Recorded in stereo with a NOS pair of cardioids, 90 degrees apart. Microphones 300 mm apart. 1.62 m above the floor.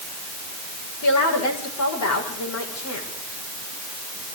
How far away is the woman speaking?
About 7.5 m.